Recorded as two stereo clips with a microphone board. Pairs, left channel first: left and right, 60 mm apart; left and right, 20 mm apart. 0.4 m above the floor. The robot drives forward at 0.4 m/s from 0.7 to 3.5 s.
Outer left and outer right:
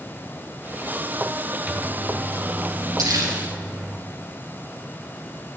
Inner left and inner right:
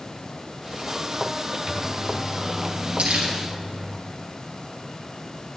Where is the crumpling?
80° right, 2.5 m.